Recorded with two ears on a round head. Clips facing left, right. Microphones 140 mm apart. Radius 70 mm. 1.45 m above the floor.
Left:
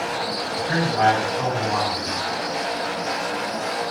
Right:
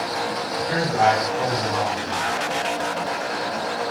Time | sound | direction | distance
0.6 | a man speaking | 55° left (ahead or behind) | 4.5 m